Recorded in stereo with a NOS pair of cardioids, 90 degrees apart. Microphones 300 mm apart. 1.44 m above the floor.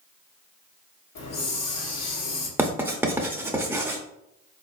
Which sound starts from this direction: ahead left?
A hiss, at 1.1 s.